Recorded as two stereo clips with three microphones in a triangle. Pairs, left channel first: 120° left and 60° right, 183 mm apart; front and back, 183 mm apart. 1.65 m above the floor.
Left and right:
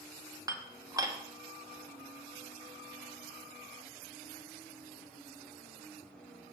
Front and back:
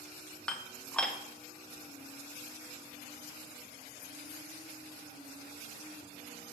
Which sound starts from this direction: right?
Dishes clattering, at 0.5 s.